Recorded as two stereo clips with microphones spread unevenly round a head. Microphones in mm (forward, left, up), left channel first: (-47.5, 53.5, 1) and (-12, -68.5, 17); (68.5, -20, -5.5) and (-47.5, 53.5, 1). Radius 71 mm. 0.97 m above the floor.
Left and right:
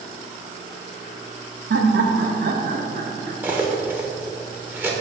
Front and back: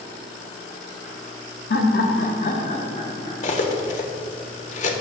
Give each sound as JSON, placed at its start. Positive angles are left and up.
{"t": 1.7, "sound": "laughter", "azimuth_deg": -50, "distance_m": 1.5}
{"t": 3.4, "sound": "cutlery clinking", "azimuth_deg": 0, "distance_m": 1.4}